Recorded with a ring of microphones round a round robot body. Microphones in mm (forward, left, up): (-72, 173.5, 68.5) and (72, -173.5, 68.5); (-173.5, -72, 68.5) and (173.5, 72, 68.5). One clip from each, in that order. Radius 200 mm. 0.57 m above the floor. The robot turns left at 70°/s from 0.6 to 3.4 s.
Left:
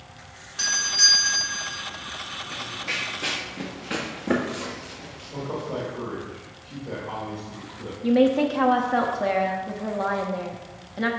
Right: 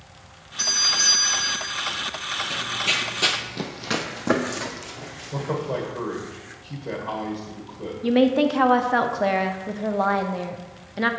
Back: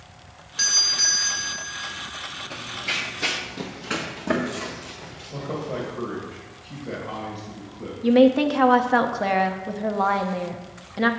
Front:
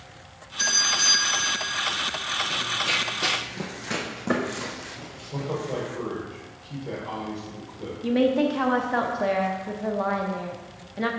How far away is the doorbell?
About 2.5 m.